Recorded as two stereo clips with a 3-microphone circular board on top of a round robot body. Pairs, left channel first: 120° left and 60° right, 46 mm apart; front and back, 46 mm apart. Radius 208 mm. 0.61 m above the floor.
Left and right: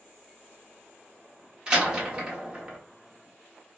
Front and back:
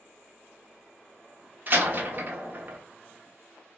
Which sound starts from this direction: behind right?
A door slam, at 1.7 s.